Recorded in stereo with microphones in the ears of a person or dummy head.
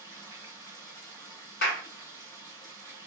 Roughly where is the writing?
No writing in this recording.